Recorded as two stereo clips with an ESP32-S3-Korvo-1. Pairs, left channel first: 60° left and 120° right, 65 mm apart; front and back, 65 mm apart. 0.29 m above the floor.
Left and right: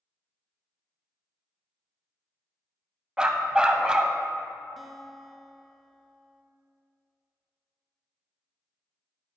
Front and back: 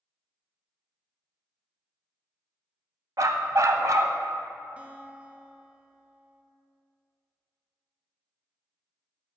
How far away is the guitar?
About 0.7 m.